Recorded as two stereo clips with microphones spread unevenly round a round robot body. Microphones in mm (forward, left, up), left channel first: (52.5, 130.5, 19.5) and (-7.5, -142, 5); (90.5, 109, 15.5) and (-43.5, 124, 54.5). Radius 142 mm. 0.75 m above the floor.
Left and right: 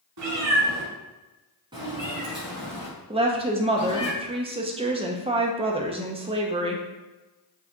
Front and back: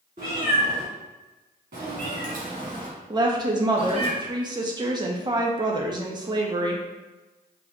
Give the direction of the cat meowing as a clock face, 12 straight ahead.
4 o'clock.